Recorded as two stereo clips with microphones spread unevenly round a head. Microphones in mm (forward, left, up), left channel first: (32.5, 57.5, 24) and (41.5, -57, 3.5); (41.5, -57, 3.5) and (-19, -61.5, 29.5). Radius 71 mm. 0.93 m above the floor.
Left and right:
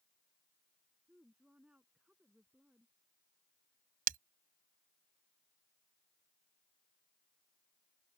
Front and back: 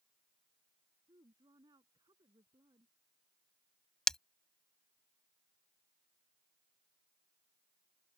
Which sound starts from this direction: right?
Breaking glass, at 4.1 s.